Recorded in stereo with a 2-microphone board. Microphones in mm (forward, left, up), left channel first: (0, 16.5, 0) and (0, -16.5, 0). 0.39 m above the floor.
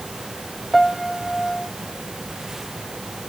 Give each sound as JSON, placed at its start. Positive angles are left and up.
{"t": 0.7, "sound": "a piano", "side_deg": 10}